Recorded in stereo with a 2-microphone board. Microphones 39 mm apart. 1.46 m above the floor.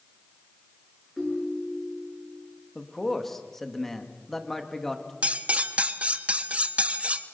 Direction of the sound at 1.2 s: 10° left (ahead or behind).